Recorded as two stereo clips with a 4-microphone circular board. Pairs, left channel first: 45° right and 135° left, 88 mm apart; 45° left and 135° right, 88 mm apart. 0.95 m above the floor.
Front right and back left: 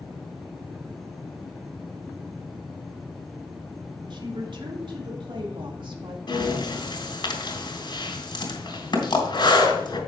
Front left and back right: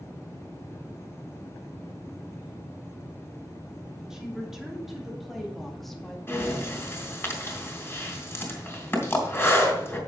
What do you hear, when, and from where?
4.1 s a woman speaking: 140° left, 3 m; by 6.2 s 130° left, 1.9 m
6.3 s breathing: 15° right, 3 m